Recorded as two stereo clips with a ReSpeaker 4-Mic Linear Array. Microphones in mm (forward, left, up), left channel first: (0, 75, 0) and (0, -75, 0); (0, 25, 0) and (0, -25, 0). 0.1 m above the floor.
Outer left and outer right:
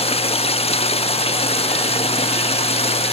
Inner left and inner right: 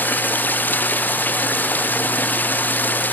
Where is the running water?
40° left (ahead or behind).